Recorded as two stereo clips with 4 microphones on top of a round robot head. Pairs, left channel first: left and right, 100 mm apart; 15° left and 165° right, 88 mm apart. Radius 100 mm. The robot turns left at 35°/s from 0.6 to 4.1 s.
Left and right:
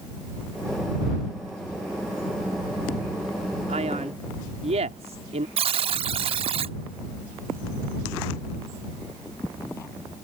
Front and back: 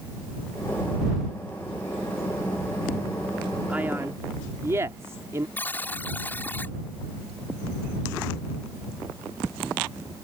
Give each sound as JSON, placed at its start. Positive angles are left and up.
{"t": 3.7, "sound": "a man speaking", "azimuth_deg": -90}
{"t": 5.6, "sound": "a buzzer", "azimuth_deg": -60}